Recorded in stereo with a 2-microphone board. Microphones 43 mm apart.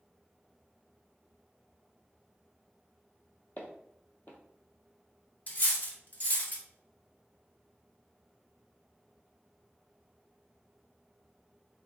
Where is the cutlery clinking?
40° left (ahead or behind), 0.6 m.